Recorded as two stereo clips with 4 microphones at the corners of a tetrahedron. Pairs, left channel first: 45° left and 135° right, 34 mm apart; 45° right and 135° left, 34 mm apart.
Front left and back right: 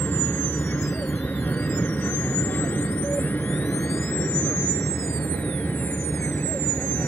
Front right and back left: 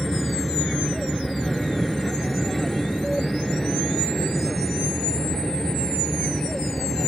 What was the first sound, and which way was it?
An aircraft, 45° left.